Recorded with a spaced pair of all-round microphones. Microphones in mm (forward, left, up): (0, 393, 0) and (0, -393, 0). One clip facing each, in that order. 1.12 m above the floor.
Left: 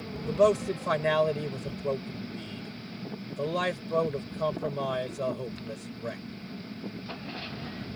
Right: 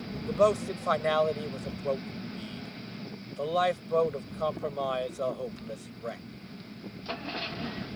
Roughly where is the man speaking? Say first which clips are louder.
Left 2 dB; left.